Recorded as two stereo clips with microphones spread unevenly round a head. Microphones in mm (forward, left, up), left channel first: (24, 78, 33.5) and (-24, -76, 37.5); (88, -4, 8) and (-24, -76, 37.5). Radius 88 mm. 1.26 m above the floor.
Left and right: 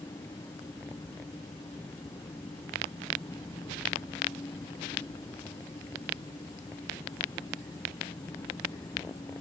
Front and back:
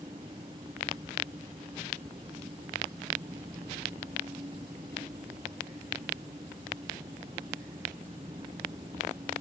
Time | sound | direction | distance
0.0 | an engine running | 145° left | ?